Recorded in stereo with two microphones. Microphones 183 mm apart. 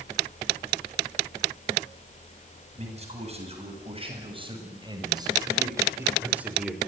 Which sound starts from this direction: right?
A man speaking, at 2.8 s.